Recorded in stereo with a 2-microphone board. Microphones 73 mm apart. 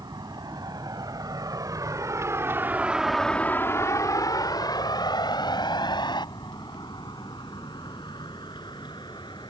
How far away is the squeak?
No squeak in this recording.